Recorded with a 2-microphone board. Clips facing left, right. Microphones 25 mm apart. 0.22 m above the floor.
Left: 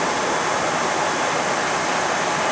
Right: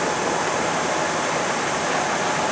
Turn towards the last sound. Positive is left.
No sound to turn to.